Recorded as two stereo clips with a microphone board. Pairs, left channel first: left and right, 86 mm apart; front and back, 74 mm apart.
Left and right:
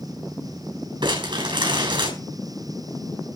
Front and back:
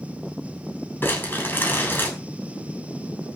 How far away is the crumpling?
About 7 m.